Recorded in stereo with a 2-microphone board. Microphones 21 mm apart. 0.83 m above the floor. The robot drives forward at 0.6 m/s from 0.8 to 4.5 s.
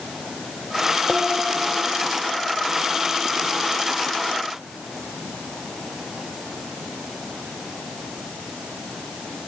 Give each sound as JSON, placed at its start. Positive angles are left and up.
{"t": 1.1, "sound": "dishes clattering", "side_deg": 15}